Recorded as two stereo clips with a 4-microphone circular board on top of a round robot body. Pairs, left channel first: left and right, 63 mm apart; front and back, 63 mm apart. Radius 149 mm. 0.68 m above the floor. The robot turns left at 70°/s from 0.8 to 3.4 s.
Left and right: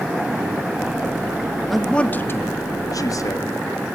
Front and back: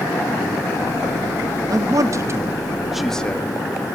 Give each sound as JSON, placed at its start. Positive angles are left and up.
{"t": 1.7, "sound": "a man speaking", "azimuth_deg": 180, "distance_m": 1.6}